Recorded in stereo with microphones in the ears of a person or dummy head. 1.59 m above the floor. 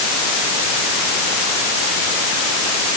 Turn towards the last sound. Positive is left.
No sound to turn to.